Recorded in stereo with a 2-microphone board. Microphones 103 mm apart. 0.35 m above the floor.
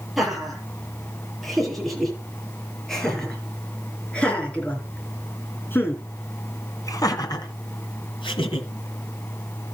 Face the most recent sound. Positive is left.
turn(degrees=65)  # may be behind; listen again after turning